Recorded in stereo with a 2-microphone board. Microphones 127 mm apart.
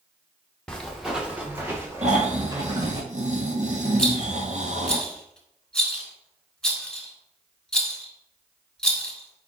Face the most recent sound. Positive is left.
turn(degrees=5)  # may be behind; listen again after turning